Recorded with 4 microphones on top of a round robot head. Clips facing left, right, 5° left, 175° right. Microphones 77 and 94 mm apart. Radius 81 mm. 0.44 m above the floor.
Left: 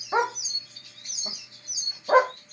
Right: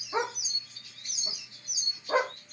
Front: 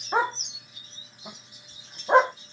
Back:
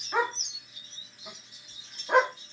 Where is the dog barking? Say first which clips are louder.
Left 6 dB, front 3 dB; 60° left, 1.2 m.